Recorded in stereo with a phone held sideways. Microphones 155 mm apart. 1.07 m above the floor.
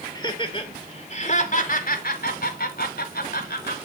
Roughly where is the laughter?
Left.